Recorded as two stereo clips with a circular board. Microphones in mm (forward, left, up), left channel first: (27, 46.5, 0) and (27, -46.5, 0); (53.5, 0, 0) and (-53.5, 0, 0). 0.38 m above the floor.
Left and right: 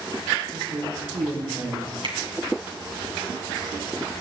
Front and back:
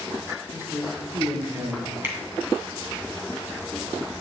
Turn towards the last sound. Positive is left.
turn(degrees=-110)